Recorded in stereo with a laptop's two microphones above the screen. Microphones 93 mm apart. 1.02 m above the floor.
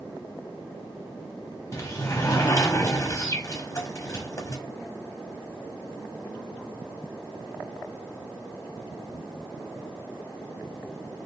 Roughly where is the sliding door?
Left.